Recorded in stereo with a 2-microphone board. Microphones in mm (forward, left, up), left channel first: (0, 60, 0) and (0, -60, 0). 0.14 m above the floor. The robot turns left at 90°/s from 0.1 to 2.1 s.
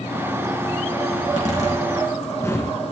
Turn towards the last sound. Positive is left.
turn(degrees=25)  # may be behind; listen again after turning